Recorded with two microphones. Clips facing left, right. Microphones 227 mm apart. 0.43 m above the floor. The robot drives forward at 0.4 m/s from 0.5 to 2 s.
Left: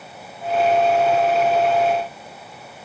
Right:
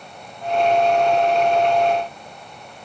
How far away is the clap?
No clap in this recording.